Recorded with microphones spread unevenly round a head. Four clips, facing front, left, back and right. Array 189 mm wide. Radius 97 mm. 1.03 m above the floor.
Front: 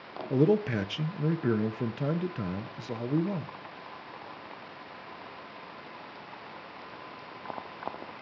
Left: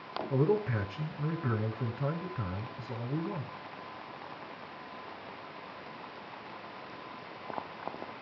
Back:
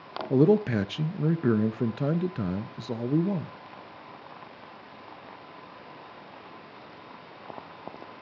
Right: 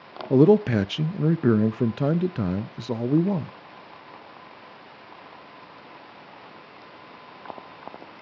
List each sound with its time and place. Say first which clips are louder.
0.3 s a man speaking: right 12 dB, back 4 dB; 100° right, 0.6 m